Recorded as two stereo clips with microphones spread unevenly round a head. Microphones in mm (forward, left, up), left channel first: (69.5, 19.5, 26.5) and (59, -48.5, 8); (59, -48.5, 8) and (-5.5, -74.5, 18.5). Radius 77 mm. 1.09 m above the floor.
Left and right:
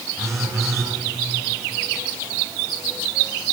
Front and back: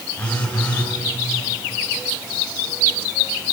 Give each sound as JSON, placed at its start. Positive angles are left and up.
{"t": 0.2, "sound": "a phone buzzing", "azimuth_deg": -50, "distance_m": 7.5}